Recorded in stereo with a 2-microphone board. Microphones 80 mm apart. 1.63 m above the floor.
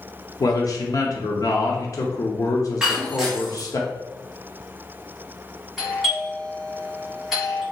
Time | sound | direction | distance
0.4 | a man speaking | 50° left (ahead or behind) | 0.6 m
2.8 | breaking glass | 10° right (ahead or behind) | 1.1 m
5.8 | a doorbell | centre (ahead or behind) | 1.9 m